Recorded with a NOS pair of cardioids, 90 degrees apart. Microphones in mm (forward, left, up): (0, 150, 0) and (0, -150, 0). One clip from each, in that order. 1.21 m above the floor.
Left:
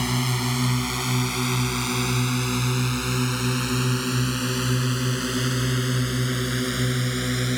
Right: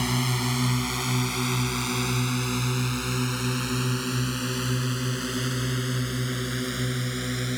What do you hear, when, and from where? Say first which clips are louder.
0.0 s a drone: left 1 dB; 5° left; by 7.6 s 25° left